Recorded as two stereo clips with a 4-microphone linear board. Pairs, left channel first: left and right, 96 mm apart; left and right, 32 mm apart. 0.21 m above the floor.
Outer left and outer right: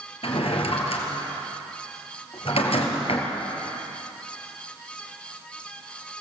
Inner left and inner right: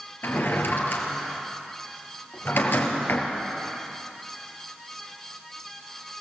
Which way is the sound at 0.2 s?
75° left (ahead or behind).